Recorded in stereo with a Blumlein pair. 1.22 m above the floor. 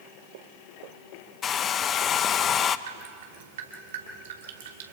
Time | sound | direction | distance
1.4 | a hair dryer | 25° left | 0.7 m
2.9 | dripping | 55° right | 2.5 m